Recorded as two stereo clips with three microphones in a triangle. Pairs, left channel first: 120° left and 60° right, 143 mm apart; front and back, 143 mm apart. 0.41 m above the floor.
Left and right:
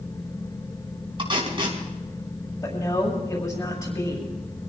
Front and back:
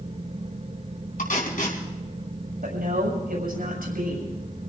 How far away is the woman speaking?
About 7 m.